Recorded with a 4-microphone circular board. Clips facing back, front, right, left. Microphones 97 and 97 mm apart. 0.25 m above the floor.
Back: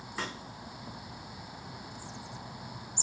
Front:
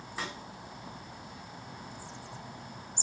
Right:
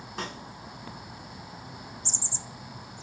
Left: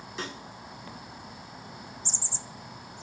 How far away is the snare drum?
About 2 m.